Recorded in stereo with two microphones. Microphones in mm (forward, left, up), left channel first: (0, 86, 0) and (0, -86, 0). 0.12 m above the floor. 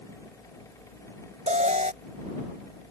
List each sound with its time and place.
1.5 s an alarm: 45° right (ahead or behind)